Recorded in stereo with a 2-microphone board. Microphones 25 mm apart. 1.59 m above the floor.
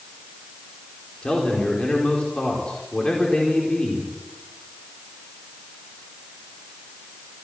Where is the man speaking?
40° left (ahead or behind), 4.5 m.